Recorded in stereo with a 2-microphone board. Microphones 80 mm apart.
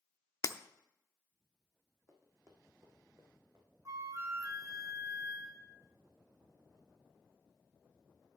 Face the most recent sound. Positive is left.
turn(degrees=-40)  # may be behind; listen again after turning